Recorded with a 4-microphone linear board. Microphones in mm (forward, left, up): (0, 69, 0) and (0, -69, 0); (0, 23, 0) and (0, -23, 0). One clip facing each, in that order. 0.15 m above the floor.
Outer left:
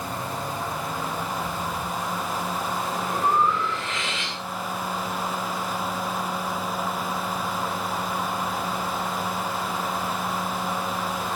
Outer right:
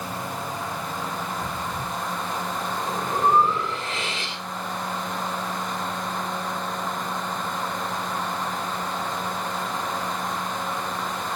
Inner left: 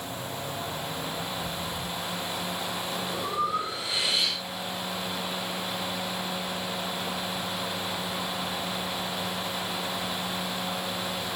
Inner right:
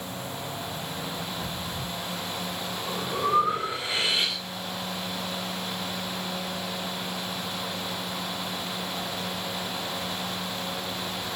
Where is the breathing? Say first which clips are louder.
Outer left 1 dB, inner left 1 dB; 35° right (ahead or behind), 8.5 m.